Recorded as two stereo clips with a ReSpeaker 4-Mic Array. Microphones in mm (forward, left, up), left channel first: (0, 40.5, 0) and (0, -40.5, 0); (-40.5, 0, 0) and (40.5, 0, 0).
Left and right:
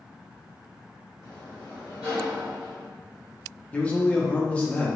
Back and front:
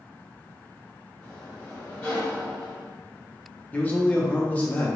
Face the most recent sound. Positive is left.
turn(degrees=135)